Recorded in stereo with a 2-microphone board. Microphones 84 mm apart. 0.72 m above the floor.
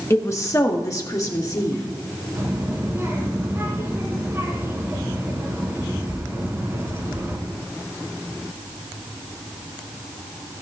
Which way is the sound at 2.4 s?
30° right (ahead or behind).